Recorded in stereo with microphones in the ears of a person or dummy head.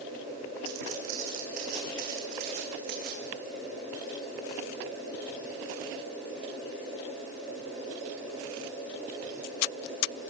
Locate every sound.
0.7 s footsteps: 40° right (ahead or behind), 4 m; by 3.3 s 60° right (ahead or behind), 5 m